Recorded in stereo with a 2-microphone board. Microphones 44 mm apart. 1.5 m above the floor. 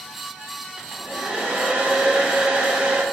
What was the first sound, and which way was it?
A hair dryer, 25° right (ahead or behind).